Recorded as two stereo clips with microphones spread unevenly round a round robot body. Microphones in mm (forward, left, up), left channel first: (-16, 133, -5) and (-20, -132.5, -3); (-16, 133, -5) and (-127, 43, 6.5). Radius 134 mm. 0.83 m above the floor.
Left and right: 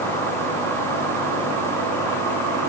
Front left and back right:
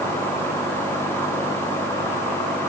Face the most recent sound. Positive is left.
No sound to turn to.